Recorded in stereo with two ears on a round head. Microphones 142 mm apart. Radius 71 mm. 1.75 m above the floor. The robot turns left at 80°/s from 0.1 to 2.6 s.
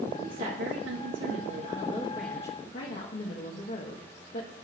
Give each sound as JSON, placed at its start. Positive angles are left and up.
{"t": 0.2, "sound": "a woman speaking", "azimuth_deg": -40, "distance_m": 1.4}